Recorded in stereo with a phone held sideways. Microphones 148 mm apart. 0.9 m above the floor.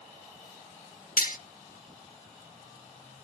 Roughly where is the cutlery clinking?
Left.